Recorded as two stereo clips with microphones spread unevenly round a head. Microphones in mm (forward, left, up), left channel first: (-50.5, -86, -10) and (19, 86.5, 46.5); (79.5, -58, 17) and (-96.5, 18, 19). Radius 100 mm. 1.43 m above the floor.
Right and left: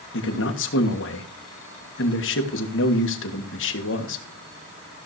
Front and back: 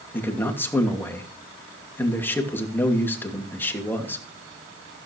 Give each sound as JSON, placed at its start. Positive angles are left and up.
{"t": 0.1, "sound": "a man speaking", "azimuth_deg": -105, "distance_m": 2.5}